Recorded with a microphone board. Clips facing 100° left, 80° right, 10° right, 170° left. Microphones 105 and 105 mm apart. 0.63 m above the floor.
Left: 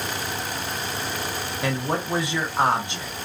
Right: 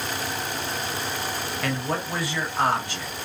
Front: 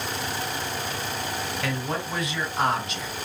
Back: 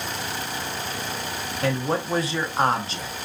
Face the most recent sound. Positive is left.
turn(degrees=150)